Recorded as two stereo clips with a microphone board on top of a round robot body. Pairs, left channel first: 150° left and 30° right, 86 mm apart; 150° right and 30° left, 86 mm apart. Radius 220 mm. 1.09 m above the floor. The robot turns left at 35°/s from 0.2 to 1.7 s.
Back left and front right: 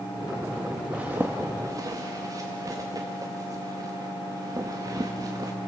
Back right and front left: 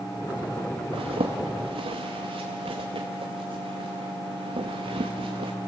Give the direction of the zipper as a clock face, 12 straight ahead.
10 o'clock.